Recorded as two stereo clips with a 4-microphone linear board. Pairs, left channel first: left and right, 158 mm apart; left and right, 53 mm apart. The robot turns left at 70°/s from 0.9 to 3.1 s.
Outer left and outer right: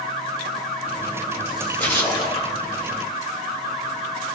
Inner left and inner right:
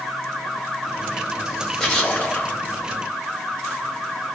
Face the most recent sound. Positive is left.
turn(degrees=80)